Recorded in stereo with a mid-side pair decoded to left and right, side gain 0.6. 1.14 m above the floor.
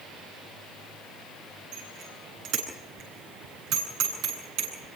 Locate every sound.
1.7 s a bicycle bell: 65° right, 10 m